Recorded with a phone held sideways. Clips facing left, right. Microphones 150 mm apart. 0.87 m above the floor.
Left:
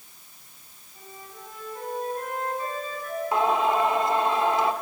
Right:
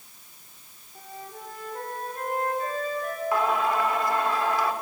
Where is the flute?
50° right (ahead or behind), 5 m.